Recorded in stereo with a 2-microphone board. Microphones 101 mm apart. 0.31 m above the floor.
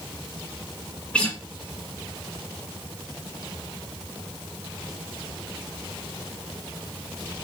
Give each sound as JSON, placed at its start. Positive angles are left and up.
{"t": 1.1, "sound": "a guitar", "side_deg": 15, "distance_m": 1.5}